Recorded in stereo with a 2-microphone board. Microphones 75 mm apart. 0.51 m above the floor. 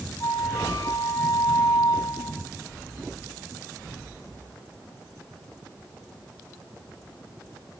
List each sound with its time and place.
0.2 s a flute: 55° left (ahead or behind), 0.9 m